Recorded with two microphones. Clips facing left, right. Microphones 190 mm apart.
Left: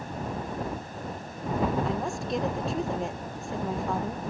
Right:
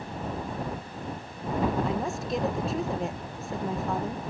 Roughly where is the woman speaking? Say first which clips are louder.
Right 1 dB; centre.